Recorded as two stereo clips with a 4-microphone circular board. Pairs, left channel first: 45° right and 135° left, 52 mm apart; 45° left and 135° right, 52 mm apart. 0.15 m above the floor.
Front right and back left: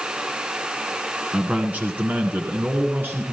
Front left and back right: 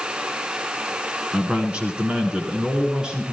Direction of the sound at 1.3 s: Straight behind.